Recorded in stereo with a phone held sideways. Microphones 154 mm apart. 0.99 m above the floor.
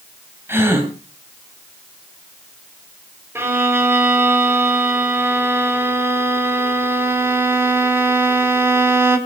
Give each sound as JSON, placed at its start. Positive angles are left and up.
{"t": 0.5, "sound": "a gasp", "side_deg": -15, "distance_m": 3.0}
{"t": 3.4, "sound": "a violin", "side_deg": -15, "distance_m": 1.8}